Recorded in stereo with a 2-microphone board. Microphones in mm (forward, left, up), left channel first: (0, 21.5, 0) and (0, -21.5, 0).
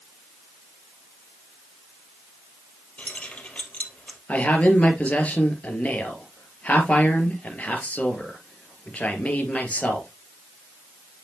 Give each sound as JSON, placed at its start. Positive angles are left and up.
{"t": 3.0, "sound": "keys jangling", "side_deg": 35, "distance_m": 2.5}
{"t": 4.3, "sound": "a man speaking", "side_deg": 35, "distance_m": 3.0}